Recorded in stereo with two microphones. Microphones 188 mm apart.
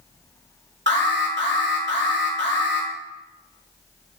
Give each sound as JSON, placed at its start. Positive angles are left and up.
{"t": 0.9, "sound": "an alarm", "side_deg": -70, "distance_m": 1.8}